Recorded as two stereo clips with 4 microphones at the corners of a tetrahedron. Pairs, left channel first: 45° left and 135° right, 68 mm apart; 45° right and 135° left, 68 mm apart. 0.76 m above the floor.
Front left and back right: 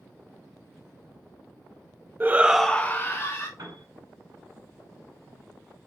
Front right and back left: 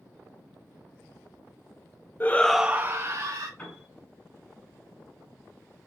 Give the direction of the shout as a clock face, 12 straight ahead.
3 o'clock.